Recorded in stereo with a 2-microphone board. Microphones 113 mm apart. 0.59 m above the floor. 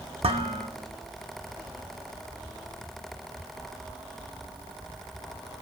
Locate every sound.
0.2 s dishes clattering: 60° right (ahead or behind), 1.1 m